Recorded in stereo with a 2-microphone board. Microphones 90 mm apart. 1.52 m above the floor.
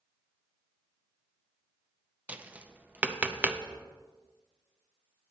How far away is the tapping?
About 0.5 m.